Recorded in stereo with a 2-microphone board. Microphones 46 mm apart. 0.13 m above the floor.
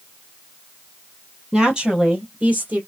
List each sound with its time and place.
1.5 s a woman speaking: 20° right (ahead or behind), 2.5 m; by 2.8 s 40° right (ahead or behind), 3 m